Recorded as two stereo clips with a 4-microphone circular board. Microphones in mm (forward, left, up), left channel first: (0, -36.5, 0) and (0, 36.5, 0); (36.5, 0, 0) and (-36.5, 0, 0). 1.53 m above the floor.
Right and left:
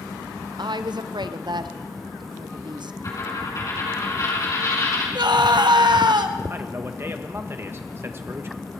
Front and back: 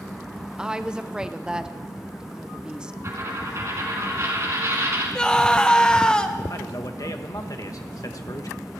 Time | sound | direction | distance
0.6 | a woman speaking | 100° left | 0.7 m
3.0 | a dropped coin | 135° right | 4.5 m
5.2 | a scream | 80° left | 1.2 m
6.5 | a man speaking | 35° left | 1.3 m